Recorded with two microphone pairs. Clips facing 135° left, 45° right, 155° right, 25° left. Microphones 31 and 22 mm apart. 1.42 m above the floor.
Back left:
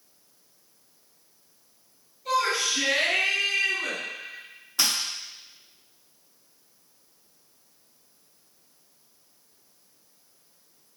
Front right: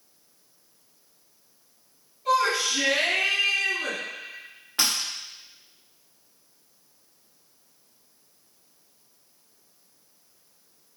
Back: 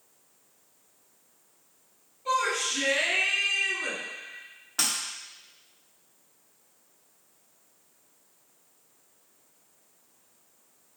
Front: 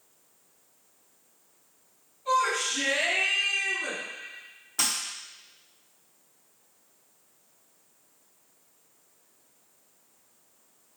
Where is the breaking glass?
95° right, 1.8 m.